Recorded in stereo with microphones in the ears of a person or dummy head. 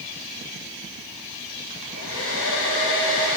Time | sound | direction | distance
1.7 | a hair dryer | 80° left | 1.2 m